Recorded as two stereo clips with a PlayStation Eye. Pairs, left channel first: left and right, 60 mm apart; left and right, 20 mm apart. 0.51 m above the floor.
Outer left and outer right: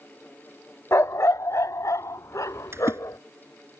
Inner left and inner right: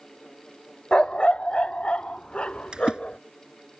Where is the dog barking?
55° left (ahead or behind); by 3.2 s 70° left (ahead or behind).